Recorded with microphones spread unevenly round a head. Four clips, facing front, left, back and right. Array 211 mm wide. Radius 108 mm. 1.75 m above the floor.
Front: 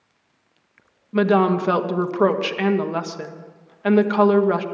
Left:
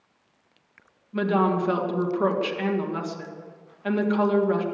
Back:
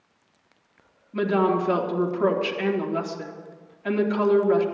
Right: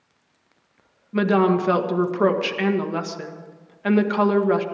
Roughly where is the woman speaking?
Ahead right.